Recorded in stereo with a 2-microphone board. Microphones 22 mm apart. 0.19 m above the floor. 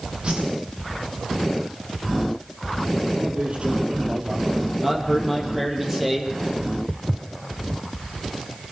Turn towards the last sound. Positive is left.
turn(degrees=-60)  # may be behind; listen again after turning